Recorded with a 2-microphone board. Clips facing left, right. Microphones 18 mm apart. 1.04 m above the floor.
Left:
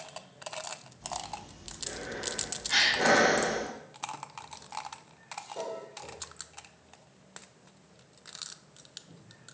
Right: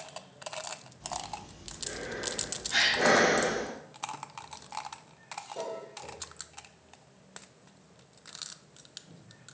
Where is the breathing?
20° right (ahead or behind), 1.0 m.